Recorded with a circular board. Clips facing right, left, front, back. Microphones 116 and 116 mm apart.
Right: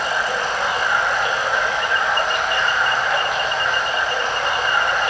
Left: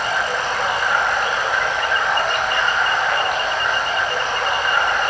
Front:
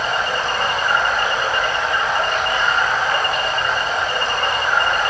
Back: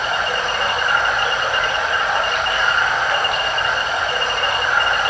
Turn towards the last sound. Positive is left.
turn(degrees=55)